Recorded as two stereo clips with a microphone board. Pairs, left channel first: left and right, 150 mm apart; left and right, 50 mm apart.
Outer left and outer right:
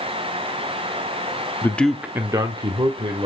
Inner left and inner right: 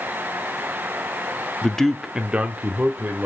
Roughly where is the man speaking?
Centre.